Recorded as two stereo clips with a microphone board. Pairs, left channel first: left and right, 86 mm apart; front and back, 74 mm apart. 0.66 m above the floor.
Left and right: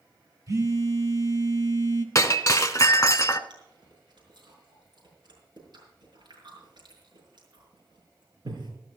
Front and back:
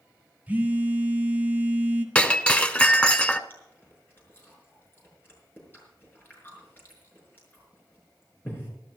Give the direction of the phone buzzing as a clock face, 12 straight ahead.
4 o'clock.